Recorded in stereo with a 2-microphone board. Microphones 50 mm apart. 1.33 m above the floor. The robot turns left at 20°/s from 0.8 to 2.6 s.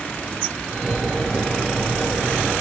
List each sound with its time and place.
Only background noise.